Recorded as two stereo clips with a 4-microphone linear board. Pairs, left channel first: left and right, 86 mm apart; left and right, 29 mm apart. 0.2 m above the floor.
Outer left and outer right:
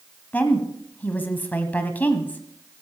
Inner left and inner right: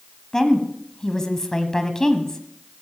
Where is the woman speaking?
20° left (ahead or behind), 1.2 m.